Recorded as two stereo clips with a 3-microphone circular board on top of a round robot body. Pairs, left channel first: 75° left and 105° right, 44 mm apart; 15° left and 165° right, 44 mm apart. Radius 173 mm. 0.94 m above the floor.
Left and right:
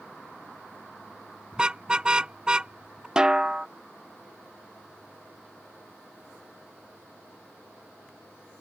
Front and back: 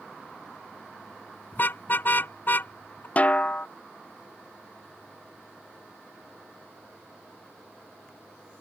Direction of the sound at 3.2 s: 35° right.